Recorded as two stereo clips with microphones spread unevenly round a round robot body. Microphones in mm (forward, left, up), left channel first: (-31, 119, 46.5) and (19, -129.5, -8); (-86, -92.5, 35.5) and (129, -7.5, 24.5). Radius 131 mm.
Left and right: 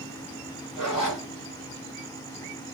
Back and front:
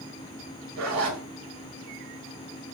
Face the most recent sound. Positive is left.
turn(degrees=15)